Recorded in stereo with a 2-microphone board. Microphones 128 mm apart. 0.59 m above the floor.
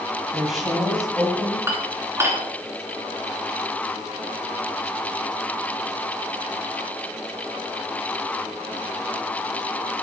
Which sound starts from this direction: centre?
A woman speaking, at 0.3 s.